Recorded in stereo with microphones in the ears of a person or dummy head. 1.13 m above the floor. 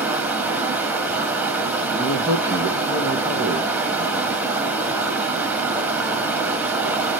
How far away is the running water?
About 0.9 m.